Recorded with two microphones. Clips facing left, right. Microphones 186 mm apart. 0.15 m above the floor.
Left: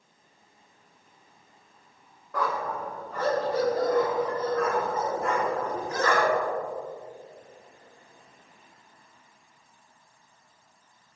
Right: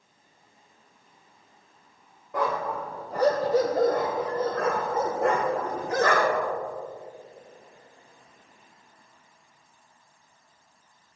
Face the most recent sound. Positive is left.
turn(degrees=-70)  # may be behind; listen again after turning